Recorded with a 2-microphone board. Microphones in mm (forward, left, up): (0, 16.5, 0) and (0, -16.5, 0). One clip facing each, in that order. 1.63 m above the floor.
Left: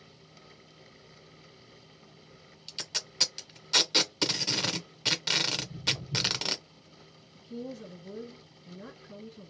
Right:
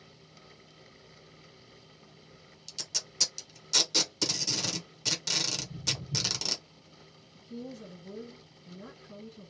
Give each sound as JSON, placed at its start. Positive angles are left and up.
{"t": 2.7, "sound": "tape being pulled", "side_deg": 35, "distance_m": 0.6}
{"t": 5.5, "sound": "footsteps", "side_deg": -35, "distance_m": 1.9}
{"t": 7.3, "sound": "a woman speaking", "side_deg": 5, "distance_m": 1.6}